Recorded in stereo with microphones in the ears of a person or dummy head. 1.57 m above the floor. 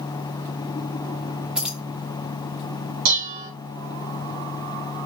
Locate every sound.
1.6 s keys jangling: 10° right (ahead or behind), 0.7 m
3.0 s dishes clattering: 65° right (ahead or behind), 3 m